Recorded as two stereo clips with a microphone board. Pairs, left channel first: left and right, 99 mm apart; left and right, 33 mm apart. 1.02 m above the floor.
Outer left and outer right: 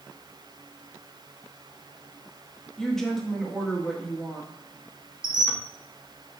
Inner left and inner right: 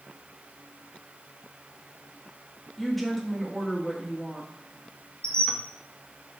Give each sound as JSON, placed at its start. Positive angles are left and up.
{"t": 2.8, "sound": "a woman speaking", "side_deg": 5, "distance_m": 1.5}
{"t": 5.2, "sound": "a squeak", "side_deg": 35, "distance_m": 1.0}